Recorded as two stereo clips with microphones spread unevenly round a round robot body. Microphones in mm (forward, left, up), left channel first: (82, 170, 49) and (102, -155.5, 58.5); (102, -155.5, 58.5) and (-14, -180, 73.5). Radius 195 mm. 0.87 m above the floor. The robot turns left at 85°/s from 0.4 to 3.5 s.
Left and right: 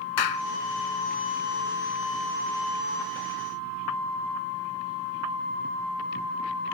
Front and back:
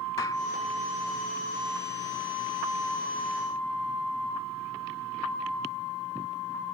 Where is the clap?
90° left; by 0.5 s 85° left.